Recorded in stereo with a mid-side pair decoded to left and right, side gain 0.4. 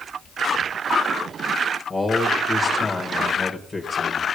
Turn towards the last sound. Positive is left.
turn(degrees=35)